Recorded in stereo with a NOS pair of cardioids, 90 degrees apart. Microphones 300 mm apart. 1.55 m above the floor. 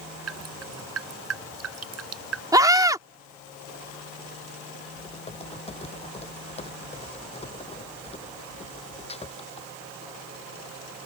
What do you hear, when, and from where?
0.3 s dripping: 55° right
2.5 s a scream: 10° right
4.9 s typing on a keyboard: 20° left